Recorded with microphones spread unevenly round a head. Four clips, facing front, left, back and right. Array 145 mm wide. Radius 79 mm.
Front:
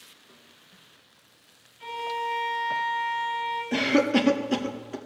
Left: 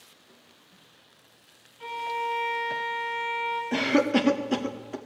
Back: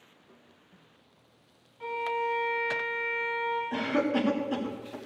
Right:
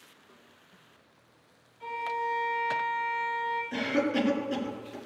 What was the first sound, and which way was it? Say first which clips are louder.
A violin: left 1 dB, even; 140° left.